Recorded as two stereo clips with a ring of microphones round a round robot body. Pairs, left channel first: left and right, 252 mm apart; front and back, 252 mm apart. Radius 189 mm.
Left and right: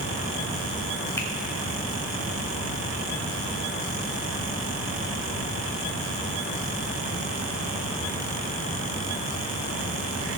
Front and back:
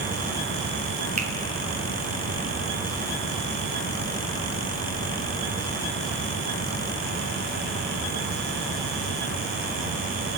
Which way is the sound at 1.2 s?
160° left.